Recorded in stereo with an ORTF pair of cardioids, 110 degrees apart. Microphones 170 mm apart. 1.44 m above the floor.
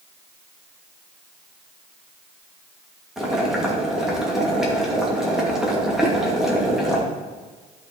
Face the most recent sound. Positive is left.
turn(degrees=-15)